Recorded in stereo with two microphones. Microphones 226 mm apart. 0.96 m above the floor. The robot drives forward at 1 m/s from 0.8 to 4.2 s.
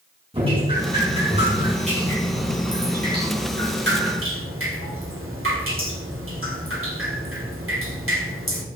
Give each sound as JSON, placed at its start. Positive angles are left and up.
{"t": 0.3, "sound": "dripping", "side_deg": -25, "distance_m": 4.5}